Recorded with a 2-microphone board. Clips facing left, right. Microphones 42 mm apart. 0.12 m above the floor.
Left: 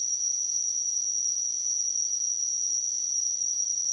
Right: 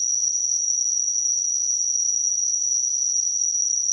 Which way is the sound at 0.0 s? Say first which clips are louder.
Right 6 dB; 15° left (ahead or behind).